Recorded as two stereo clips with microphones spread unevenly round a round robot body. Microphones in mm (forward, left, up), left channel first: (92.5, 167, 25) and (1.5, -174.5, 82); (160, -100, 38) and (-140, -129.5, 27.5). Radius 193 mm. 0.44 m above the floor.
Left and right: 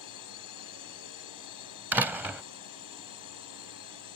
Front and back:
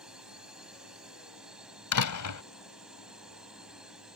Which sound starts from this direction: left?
A drone, at 0.0 s.